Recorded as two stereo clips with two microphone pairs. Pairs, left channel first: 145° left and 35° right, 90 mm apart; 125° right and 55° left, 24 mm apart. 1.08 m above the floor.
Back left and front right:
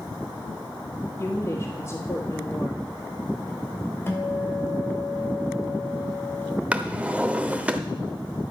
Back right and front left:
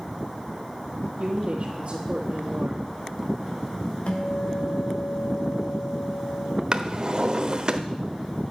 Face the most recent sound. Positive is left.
turn(degrees=30)